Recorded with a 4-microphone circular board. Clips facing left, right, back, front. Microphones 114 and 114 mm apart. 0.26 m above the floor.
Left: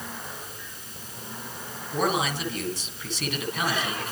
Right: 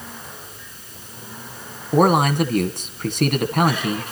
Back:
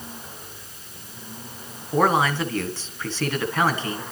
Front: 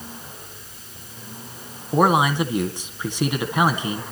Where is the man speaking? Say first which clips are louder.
Right 10 dB, front 2 dB; 70° right, 2.0 m.